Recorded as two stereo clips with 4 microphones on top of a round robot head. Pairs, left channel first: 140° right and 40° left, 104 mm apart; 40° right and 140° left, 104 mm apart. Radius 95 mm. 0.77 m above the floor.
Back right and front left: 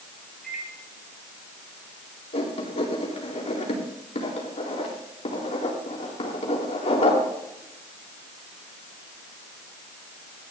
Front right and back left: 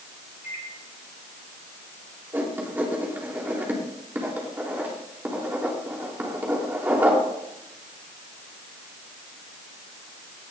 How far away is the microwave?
About 4 m.